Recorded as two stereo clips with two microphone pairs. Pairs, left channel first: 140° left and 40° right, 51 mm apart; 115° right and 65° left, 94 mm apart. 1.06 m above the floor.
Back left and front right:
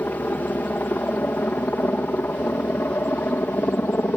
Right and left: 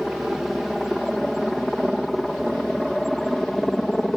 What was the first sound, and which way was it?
A helicopter, 150° left.